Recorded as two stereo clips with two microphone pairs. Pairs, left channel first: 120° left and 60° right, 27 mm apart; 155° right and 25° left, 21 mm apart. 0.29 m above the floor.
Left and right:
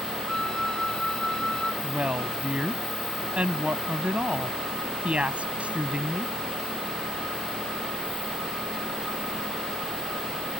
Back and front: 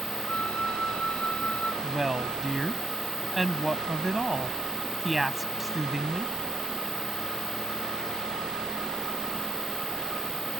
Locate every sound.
0.3 s a flute: 175° right
1.8 s a woman speaking: 55° right